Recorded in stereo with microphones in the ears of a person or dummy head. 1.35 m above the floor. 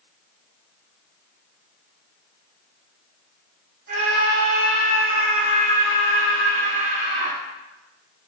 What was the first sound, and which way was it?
A scream, 60° right (ahead or behind).